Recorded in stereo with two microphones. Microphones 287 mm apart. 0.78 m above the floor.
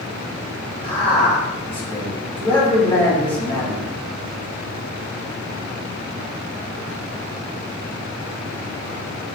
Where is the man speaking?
15° left (ahead or behind), 1.2 m.